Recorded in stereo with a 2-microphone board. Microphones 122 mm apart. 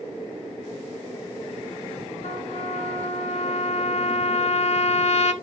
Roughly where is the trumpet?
Left.